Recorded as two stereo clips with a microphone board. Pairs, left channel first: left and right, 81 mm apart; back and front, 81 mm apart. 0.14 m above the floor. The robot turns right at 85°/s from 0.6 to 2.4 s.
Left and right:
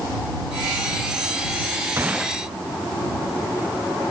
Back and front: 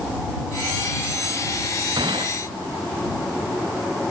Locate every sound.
2.0 s a gunshot: 30° right; by 2.4 s 10° left